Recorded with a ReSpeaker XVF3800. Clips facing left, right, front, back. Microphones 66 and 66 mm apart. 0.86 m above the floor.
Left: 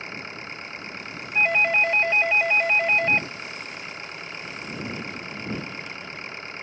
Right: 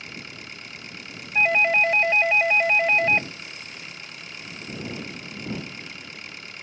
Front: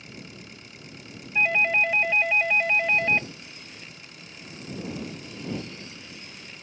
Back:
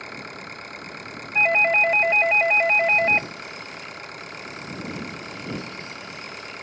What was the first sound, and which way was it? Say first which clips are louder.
An engine running: left 4 dB, back 8 dB; 145° left.